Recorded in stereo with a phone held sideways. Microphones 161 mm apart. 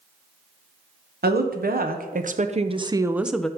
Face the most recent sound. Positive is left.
turn(degrees=5)  # may be behind; listen again after turning